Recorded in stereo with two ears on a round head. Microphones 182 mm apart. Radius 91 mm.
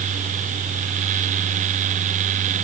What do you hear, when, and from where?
Only background noise.